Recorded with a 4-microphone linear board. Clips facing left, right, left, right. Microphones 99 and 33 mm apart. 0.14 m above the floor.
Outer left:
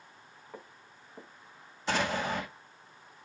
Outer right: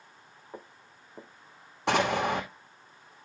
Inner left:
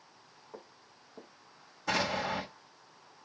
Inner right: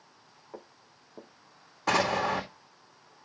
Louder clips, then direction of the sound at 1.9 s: Outer right 5 dB, inner right 5 dB; 75° right (ahead or behind).